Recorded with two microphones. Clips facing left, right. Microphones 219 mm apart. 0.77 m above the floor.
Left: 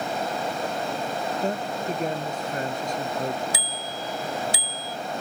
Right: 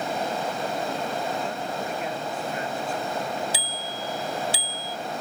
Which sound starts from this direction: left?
A man speaking, at 1.4 s.